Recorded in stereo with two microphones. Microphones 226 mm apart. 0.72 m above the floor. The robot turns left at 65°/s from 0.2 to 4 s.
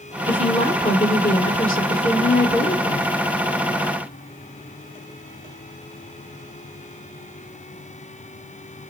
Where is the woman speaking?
165° right, 2 m; by 3.1 s 15° left, 2 m.